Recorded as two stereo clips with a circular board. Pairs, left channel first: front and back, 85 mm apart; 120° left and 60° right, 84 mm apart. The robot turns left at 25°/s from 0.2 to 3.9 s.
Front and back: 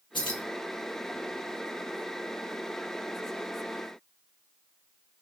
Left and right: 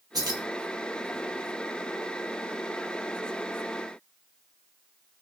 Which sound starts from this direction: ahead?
Keys jangling, at 0.1 s.